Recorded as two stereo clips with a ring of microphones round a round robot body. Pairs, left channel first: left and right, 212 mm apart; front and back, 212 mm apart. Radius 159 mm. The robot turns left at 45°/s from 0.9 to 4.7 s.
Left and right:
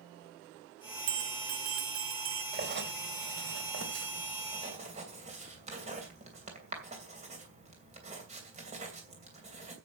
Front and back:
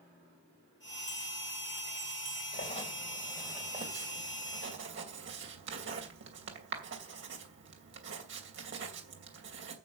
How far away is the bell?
About 0.8 m.